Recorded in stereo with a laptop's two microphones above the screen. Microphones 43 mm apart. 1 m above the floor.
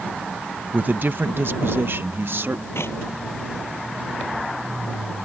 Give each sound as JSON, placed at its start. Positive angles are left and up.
{"t": 0.7, "sound": "a man speaking", "side_deg": -40}
{"t": 2.8, "sound": "a clap", "side_deg": 75}